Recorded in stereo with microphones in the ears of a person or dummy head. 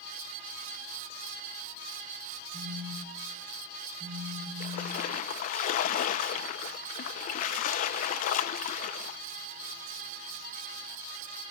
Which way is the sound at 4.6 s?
45° left (ahead or behind).